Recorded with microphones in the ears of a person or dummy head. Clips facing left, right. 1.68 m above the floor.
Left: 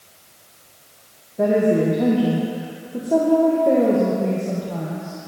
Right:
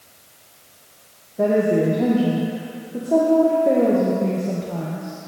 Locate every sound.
1.4 s a woman speaking: centre (ahead or behind), 1.0 m